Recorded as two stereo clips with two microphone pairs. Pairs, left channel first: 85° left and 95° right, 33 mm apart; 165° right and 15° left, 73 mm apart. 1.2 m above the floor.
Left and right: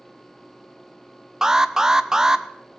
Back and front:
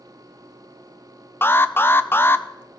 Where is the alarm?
150° right, 0.6 m.